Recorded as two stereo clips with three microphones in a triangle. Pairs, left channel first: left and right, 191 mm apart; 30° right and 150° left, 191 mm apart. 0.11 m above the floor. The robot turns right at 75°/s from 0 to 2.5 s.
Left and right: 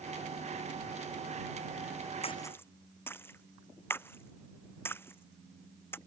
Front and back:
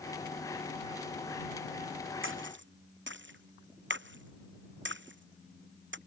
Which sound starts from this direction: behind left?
A splash, at 2.2 s.